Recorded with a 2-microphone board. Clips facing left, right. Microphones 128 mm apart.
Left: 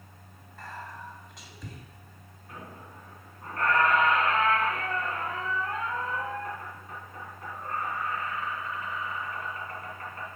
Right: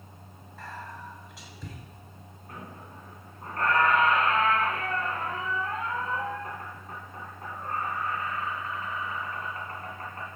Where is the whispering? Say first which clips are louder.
Even; centre (ahead or behind), 2 m.